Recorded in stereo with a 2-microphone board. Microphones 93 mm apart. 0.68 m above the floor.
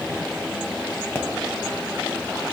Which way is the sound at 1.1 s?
25° left (ahead or behind).